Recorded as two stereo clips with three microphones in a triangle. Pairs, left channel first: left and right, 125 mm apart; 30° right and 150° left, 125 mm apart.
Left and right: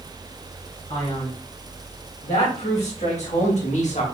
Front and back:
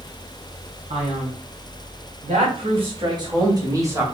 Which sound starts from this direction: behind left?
A man speaking, at 0.9 s.